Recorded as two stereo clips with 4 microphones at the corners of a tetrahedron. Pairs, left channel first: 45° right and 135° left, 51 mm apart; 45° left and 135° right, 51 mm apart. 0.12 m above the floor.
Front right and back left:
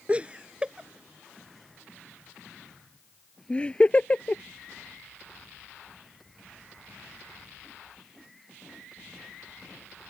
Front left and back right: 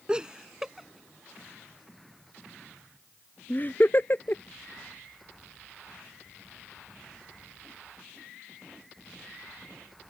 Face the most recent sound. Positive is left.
turn(degrees=10)